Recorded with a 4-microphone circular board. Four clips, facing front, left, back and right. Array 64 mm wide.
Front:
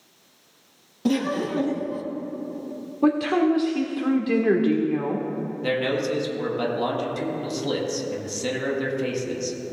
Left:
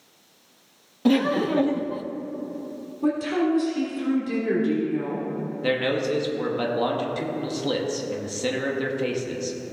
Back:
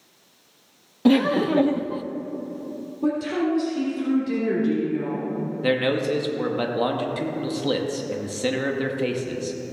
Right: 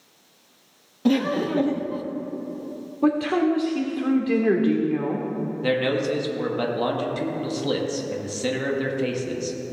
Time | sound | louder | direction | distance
1.1 | laughter | left 1 dB, back 5 dB | 165° left | 0.5 m
3.0 | a woman speaking | right 3 dB, front 4 dB | 40° right | 1.6 m
5.6 | a man speaking | right 1 dB, back 2 dB | straight behind | 1.2 m